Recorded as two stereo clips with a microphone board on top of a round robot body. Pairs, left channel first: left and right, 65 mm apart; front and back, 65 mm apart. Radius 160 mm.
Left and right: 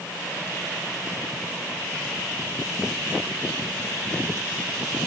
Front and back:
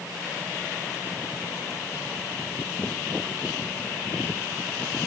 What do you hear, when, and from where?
Only background noise.